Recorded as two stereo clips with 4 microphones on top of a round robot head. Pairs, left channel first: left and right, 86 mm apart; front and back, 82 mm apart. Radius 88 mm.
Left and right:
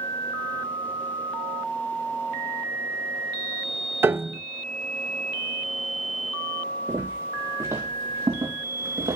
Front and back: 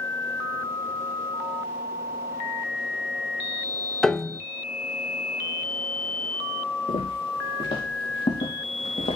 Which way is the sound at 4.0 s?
80° right.